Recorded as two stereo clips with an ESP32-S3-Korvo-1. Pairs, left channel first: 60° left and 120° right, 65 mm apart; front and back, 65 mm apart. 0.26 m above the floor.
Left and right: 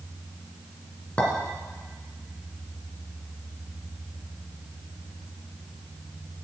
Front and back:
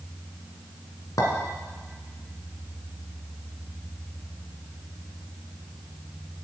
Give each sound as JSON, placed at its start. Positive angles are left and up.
{"t": 1.2, "sound": "a clink", "azimuth_deg": -10, "distance_m": 1.7}